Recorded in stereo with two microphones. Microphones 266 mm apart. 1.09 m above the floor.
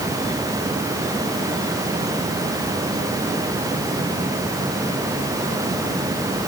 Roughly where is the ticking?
I don't hear ticking.